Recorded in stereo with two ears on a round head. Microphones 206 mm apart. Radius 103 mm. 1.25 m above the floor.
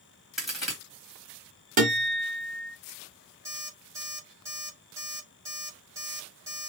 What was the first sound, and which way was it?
A crack, centre (ahead or behind).